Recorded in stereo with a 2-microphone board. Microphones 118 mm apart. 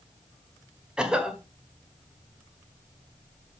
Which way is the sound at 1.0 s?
5° right (ahead or behind).